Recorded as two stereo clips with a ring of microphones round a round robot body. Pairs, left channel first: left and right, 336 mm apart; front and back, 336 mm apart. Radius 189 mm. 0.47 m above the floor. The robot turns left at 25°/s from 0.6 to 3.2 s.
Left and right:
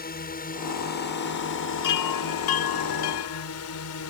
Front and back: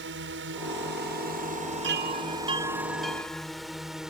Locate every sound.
0.0 s a drone: 140° left; by 4.1 s 90° left
1.8 s a chime: 120° left; by 3.5 s 85° left